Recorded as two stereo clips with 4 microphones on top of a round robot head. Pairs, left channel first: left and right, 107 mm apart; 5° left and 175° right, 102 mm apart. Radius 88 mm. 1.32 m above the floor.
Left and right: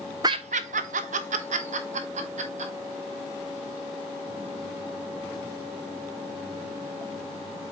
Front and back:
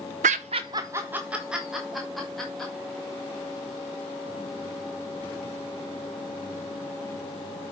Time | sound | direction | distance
0.2 | laughter | 160° right | 0.5 m